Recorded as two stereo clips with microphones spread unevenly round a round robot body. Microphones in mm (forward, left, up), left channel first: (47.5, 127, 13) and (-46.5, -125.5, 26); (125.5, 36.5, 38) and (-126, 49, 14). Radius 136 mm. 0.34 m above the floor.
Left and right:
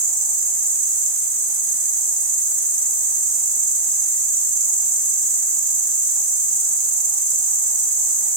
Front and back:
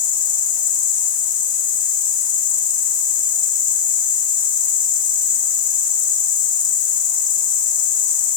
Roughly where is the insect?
Right.